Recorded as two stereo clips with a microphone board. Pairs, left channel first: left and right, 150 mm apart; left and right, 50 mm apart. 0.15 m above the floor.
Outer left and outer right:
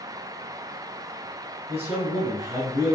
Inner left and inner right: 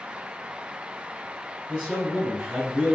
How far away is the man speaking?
About 2.0 m.